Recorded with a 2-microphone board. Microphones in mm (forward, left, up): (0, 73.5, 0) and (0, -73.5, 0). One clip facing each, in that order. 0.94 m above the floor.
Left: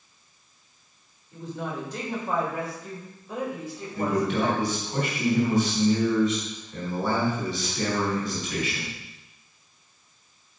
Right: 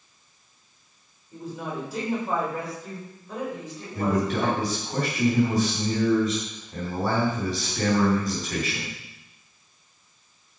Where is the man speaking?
45° right (ahead or behind), 3.5 m.